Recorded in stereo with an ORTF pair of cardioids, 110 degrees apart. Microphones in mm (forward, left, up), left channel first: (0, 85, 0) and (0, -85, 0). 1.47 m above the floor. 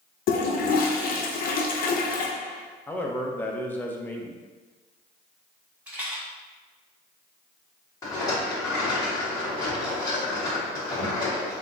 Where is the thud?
No thud in this recording.